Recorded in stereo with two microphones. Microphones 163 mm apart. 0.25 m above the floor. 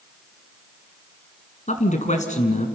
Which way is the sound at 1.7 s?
45° left (ahead or behind).